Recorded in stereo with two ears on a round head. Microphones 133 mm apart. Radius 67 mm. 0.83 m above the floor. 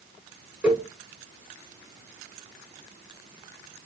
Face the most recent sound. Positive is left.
turn(degrees=-10)  # may be behind; listen again after turning